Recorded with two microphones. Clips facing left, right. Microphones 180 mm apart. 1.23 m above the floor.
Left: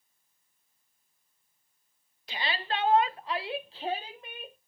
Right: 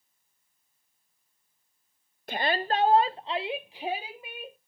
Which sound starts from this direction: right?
A shout, at 2.3 s.